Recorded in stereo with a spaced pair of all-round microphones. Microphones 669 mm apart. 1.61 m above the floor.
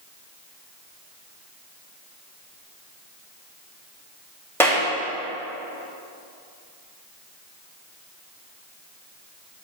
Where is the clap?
5° left (ahead or behind), 3 m.